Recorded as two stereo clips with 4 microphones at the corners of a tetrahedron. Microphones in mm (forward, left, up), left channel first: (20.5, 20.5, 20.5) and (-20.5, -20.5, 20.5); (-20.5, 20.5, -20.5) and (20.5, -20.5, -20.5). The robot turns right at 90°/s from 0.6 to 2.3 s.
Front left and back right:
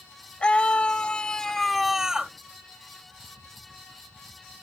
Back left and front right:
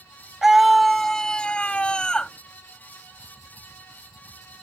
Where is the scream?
30° left; by 2.3 s straight behind.